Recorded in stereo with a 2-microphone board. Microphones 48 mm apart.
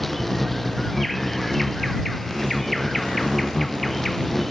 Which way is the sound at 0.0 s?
5° left (ahead or behind).